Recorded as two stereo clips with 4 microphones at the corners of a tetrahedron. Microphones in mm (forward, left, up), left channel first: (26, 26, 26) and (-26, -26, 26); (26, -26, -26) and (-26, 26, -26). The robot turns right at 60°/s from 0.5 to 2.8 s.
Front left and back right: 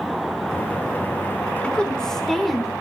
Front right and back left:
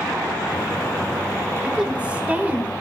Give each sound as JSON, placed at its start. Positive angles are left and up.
{"t": 1.6, "sound": "a woman speaking", "azimuth_deg": 85, "distance_m": 1.1}